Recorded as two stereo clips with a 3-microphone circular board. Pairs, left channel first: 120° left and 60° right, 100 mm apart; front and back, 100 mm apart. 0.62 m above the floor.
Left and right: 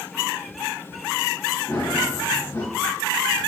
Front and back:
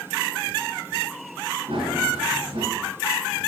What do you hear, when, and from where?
1.7 s running footsteps: 175° right, 5 m